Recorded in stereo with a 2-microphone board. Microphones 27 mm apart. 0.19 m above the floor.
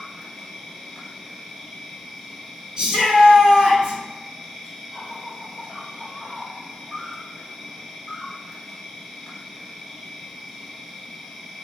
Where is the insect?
5° right (ahead or behind), 0.9 m.